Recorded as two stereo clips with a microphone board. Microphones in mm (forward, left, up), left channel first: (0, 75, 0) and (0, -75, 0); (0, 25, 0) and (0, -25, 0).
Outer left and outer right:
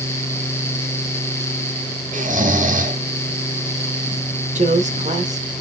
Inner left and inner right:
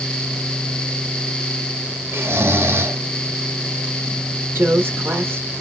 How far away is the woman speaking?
About 1.3 m.